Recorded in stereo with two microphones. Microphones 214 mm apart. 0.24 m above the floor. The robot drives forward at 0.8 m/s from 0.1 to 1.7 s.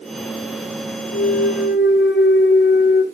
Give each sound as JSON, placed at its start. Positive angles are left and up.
{"t": 1.1, "sound": "a clunk", "side_deg": 85, "distance_m": 0.6}